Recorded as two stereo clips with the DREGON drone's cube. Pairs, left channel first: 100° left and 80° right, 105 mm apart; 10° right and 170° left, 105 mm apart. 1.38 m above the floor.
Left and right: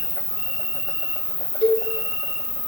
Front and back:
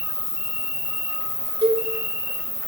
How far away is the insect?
About 1.2 m.